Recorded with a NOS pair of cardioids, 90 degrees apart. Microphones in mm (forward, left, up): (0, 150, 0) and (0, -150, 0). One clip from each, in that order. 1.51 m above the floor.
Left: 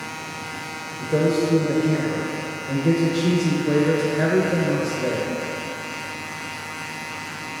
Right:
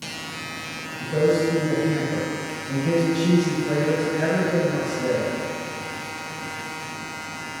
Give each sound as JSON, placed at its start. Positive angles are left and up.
{"t": 1.0, "sound": "a man speaking", "azimuth_deg": 30, "distance_m": 0.9}